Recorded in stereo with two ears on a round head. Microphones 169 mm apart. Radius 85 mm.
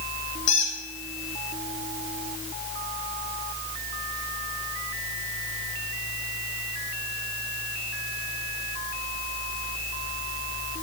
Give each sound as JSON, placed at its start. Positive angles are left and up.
{"t": 0.5, "sound": "a squeak", "side_deg": 70, "distance_m": 3.5}